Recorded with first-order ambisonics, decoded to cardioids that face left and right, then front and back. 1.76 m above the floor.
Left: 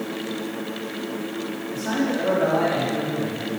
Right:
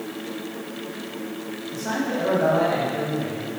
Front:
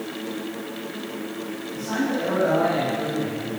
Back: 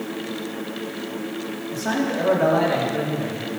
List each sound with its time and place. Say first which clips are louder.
1.7 s a man speaking: left 1 dB, back 2 dB; 170° right, 2.5 m